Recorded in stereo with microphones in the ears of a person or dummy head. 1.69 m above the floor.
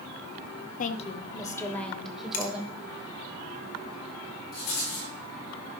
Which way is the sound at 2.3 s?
55° left (ahead or behind).